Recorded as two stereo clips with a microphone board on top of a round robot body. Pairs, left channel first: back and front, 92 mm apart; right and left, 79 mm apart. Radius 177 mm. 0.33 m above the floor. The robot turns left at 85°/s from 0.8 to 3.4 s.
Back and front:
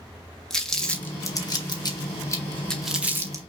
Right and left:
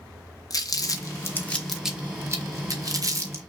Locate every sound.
0.5 s crumpling: 100° right, 1.7 m; by 3.4 s 40° left, 1.7 m